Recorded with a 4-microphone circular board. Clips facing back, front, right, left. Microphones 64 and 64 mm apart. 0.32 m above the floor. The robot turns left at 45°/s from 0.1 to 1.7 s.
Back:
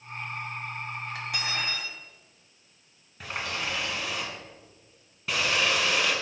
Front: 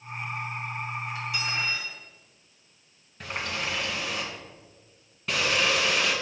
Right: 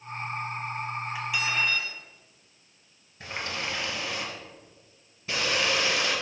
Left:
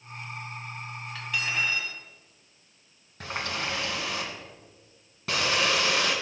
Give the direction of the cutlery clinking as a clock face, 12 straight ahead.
5 o'clock.